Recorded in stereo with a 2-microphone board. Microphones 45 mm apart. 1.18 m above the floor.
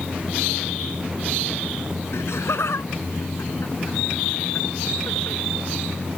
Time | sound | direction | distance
2.1 | laughter | 75° left (ahead or behind) | ?